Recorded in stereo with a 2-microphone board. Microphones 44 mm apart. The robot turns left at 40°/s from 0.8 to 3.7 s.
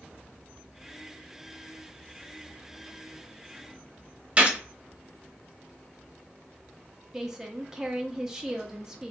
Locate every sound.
4.4 s a gunshot: 30° right (ahead or behind), 1.0 m
7.1 s a woman speaking: 15° right (ahead or behind), 0.6 m